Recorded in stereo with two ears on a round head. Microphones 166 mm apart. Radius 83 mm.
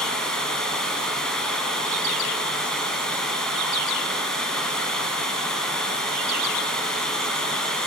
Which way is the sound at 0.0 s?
5° left (ahead or behind).